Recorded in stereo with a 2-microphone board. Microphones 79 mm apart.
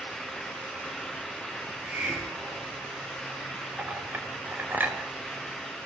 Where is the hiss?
20° right (ahead or behind), 7.5 m.